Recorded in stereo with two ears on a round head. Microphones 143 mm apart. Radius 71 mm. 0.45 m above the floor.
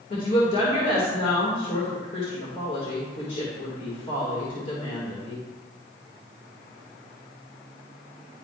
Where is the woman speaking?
40° left (ahead or behind), 1.6 m.